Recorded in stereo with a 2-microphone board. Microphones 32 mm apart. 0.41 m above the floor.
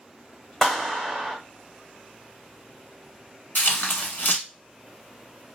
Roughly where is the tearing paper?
Left.